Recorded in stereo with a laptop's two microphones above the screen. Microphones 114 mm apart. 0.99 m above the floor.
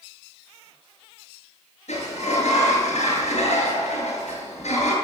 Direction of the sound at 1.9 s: 85° left.